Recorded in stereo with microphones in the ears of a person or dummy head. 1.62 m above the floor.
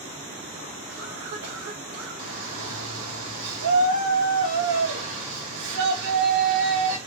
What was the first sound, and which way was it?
A cough, 65° right (ahead or behind).